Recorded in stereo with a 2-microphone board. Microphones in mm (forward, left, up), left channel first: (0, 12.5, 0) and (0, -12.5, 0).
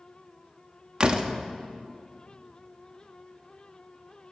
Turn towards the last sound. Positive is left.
turn(degrees=-40)  # may be behind; listen again after turning